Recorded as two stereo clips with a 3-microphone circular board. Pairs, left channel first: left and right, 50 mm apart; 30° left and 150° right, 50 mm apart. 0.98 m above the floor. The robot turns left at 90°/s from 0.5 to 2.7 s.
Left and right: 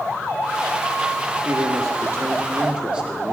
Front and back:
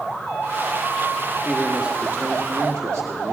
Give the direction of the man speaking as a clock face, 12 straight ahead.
2 o'clock.